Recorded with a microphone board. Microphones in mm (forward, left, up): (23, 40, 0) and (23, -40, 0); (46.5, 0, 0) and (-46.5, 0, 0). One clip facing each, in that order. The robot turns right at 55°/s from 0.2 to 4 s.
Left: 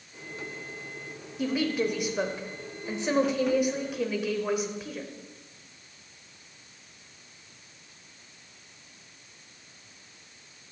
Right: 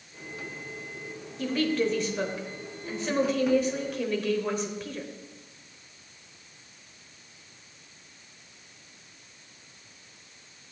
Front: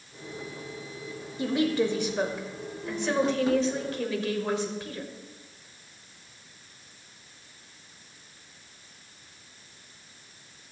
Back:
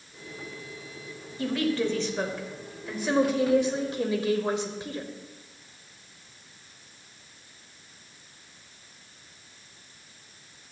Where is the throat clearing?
I don't hear throat clearing.